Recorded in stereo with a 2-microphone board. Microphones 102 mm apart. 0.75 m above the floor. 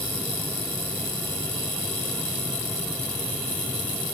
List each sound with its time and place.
Only background noise.